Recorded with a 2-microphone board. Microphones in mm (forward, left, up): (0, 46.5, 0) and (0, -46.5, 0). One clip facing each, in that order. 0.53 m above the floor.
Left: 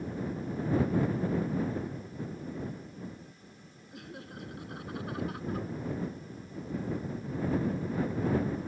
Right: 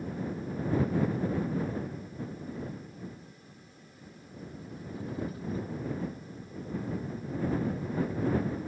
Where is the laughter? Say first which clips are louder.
Left 6 dB; 80° left; by 5.7 s 70° left (ahead or behind).